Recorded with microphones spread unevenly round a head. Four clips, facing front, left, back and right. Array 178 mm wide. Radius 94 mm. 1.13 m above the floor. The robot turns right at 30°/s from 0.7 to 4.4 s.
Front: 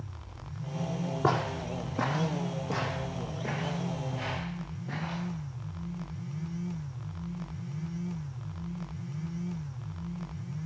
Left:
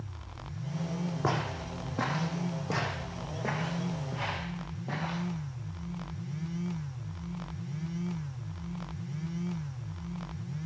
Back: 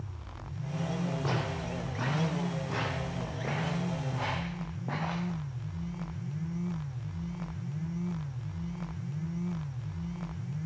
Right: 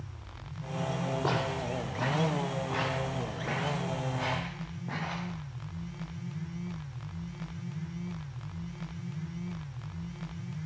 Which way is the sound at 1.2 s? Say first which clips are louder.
Even, front 5 dB; 25° left.